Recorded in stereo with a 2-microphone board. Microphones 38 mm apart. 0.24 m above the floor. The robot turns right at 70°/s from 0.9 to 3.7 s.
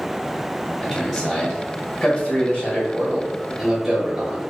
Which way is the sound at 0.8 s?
5° right (ahead or behind).